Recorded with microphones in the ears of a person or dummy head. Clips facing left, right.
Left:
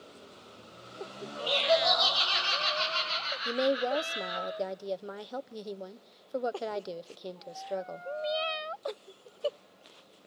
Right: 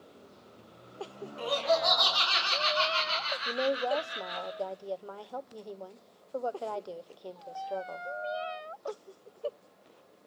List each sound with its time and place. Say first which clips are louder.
1.4 s laughter: left 1 dB; 65° right (ahead or behind), 7 m; by 4.5 s 45° right (ahead or behind), 8.5 m
3.5 s a woman speaking: left 2 dB; 25° left (ahead or behind), 0.5 m